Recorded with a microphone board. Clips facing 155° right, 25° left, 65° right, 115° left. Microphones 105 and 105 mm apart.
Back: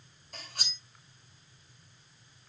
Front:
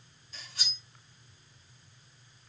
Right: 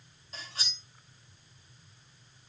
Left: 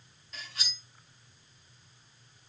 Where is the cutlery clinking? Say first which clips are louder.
Back 2 dB, right 1 dB; 125° right, 1.8 m.